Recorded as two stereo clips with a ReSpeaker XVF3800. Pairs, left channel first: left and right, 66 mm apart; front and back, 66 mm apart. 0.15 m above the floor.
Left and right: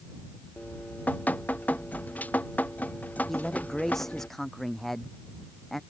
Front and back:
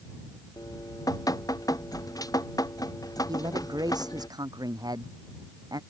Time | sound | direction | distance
0.6 | dripping | 25° left | ?
3.3 | a man speaking | 175° left | ?